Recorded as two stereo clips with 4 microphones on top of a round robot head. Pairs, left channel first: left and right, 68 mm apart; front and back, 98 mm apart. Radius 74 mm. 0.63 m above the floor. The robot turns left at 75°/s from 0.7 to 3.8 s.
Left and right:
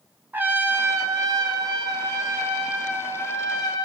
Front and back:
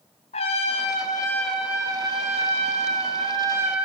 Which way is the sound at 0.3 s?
25° right.